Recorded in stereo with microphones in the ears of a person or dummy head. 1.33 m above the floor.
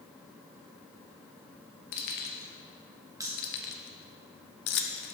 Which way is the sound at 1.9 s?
60° left (ahead or behind).